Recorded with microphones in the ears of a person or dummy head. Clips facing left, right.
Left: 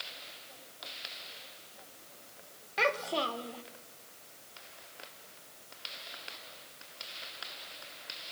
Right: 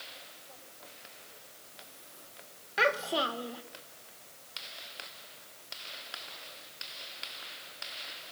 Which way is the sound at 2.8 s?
10° right (ahead or behind).